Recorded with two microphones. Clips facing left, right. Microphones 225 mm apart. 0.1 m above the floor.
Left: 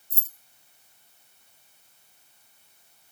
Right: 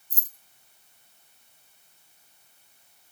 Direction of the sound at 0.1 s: 15° right (ahead or behind).